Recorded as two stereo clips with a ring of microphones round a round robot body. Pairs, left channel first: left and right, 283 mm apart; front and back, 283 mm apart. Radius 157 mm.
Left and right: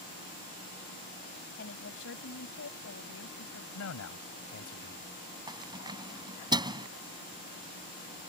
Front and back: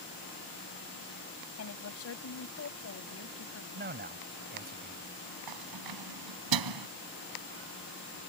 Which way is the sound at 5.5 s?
165° right.